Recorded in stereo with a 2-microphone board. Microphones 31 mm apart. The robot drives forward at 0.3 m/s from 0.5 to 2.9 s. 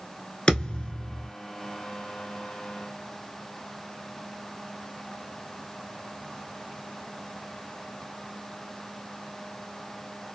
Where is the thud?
25° left (ahead or behind), 0.8 m; by 1.3 s 35° left (ahead or behind), 0.7 m.